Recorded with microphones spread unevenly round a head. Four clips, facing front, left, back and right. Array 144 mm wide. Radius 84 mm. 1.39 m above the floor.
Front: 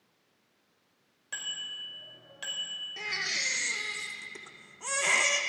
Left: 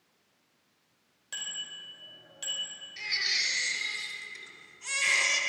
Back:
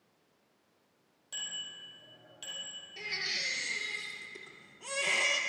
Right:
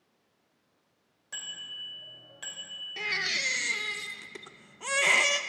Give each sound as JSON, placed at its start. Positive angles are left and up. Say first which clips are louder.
{"t": 1.3, "sound": "a bicycle bell", "louder": "left 1 dB, front 5 dB", "azimuth_deg": 20, "distance_m": 4.0}
{"t": 3.0, "sound": "a baby crying", "louder": "right 3 dB, front 4 dB", "azimuth_deg": -45, "distance_m": 0.7}